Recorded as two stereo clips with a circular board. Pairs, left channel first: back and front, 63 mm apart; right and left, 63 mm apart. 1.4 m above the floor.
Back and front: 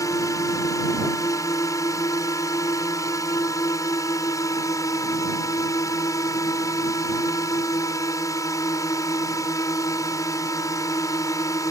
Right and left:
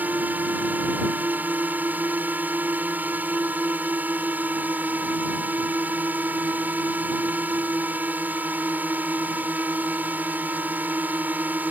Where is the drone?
155° left.